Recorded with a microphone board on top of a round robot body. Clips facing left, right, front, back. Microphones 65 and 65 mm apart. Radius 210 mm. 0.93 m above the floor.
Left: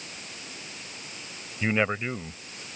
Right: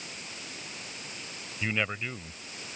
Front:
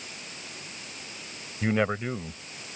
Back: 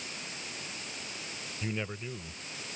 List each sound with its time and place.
1.6 s a man speaking: 30° left